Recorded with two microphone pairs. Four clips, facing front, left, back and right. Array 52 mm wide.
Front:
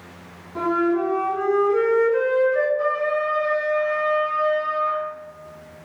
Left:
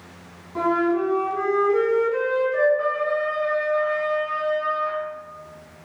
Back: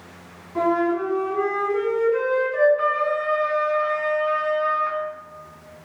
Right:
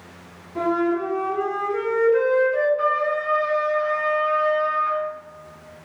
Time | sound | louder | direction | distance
0.6 | a flute | left 1 dB, even | 105° left | 1.9 m
2.8 | a trumpet | right 1 dB, even | 165° right | 0.5 m